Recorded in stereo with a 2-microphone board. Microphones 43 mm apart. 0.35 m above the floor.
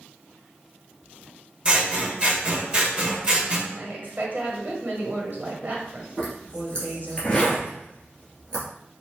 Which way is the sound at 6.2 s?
25° left (ahead or behind).